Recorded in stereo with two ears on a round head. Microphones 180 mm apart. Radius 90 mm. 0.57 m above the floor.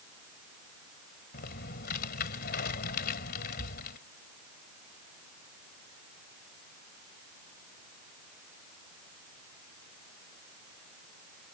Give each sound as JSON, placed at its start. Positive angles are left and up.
{"t": 1.3, "sound": "typing on a keyboard", "side_deg": 50}